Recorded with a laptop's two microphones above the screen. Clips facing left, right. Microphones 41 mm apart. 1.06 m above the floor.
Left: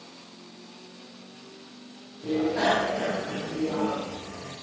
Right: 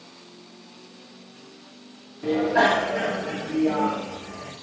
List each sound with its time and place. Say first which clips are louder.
2.2 s a bicycle bell: right 4 dB; 70° right (ahead or behind), 6 m; by 4.5 s 60° right (ahead or behind), 5 m